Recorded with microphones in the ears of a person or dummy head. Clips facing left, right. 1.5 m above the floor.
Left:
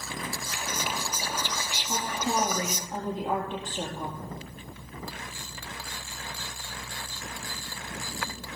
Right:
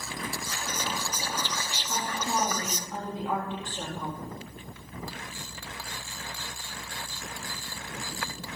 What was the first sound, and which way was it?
Whispering, 5° left (ahead or behind).